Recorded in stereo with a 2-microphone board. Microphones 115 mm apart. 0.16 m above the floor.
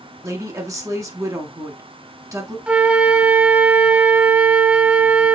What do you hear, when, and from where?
0.2 s a woman speaking: 30° right (ahead or behind), 1.3 m
2.7 s a flute: 10° right (ahead or behind), 0.5 m